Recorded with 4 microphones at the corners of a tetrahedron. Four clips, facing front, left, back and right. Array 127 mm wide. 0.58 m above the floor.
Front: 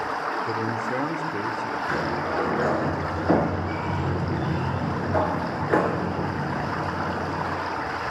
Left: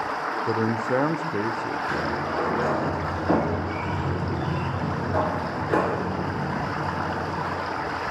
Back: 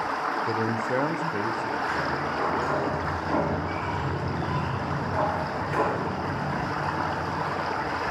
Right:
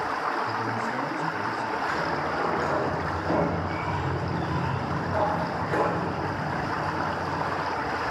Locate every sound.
0.5 s a man speaking: 95° left, 1.4 m
1.9 s a sliding door: 30° left, 5.5 m